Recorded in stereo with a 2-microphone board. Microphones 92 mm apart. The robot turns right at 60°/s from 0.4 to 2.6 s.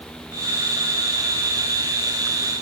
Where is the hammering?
No hammering in this recording.